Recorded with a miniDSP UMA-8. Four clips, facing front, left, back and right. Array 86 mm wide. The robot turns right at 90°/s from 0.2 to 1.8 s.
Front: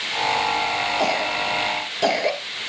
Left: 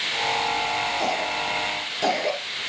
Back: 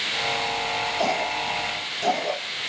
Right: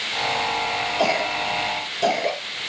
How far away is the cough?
About 2.5 m.